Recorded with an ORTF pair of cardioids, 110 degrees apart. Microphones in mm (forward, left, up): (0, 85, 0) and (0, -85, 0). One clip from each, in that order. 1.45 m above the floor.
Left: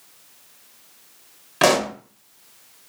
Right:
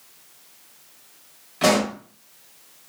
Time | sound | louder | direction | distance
1.6 | a pop | left 2 dB | 60° left | 0.9 m